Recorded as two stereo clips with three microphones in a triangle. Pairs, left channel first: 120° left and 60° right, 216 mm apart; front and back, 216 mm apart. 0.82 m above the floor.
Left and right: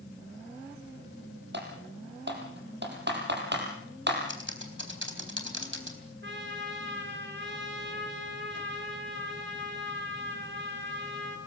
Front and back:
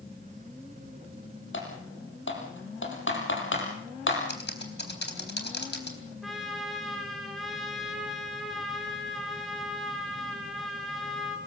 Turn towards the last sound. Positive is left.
turn(degrees=-90)